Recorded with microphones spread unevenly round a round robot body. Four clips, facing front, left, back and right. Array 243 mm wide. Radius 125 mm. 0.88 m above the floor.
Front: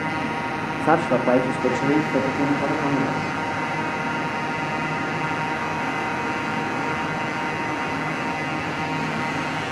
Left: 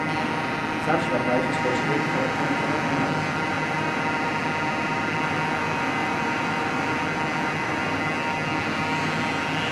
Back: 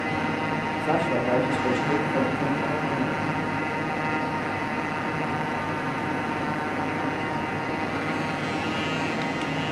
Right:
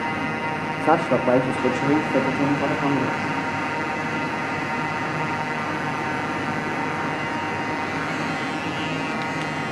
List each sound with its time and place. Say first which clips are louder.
0.8 s a man speaking: right 5 dB, front 6 dB; 40° right, 1.8 m; by 3.3 s 45° right, 3 m